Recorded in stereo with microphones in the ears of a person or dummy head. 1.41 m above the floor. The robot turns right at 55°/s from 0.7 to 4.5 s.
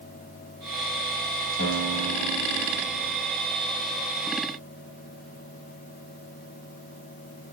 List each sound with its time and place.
1.6 s a guitar: 55° left, 6.5 m; by 3.2 s 140° left, 6.5 m